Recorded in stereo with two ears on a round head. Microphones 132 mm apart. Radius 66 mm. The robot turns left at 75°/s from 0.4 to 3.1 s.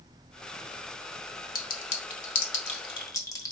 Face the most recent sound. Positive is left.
turn(degrees=25)  # may be behind; listen again after turning